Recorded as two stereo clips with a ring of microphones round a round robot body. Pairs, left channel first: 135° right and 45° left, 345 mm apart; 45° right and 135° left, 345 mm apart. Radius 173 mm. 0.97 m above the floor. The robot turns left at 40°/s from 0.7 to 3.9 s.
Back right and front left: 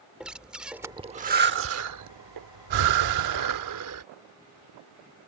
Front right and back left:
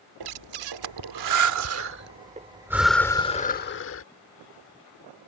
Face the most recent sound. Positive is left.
turn(degrees=5)